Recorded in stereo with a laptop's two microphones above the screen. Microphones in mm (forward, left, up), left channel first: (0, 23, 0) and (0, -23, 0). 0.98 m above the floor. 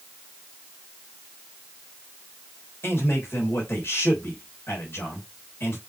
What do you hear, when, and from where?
2.8 s a man speaking: 65° left (ahead or behind), 3 m